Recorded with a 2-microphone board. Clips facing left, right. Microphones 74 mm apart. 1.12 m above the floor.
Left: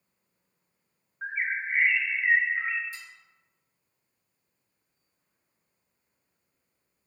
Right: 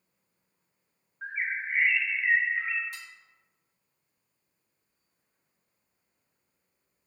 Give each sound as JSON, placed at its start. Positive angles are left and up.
{"t": 1.2, "sound": "a bird", "side_deg": 15, "distance_m": 0.8}
{"t": 2.9, "sound": "dishes clattering", "side_deg": -60, "distance_m": 1.1}